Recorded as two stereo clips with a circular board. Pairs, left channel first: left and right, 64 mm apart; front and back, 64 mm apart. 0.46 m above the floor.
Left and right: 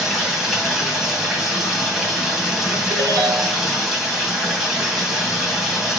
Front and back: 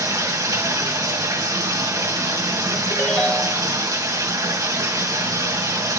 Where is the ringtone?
80° right, 0.8 m.